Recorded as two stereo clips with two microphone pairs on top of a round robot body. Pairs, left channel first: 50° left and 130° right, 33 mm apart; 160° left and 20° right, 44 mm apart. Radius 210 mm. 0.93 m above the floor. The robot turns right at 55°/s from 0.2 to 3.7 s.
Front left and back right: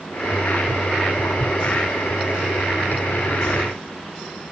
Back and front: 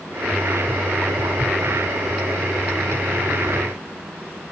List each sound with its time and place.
Only background noise.